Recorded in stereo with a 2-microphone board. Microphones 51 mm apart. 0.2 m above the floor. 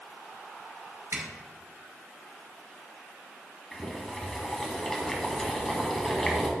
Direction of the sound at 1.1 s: 70° right (ahead or behind).